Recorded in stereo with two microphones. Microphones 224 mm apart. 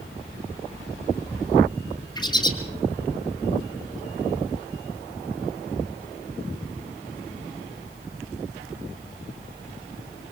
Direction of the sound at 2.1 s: 20° left (ahead or behind).